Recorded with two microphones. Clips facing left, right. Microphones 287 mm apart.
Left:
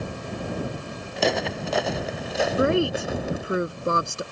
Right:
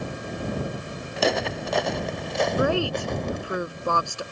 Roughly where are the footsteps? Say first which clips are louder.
Even; centre.